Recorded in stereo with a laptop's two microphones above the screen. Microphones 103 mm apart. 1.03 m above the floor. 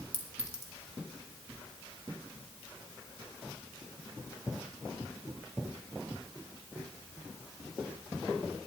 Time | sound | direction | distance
0.1 | a clink | 85° right | 1.9 m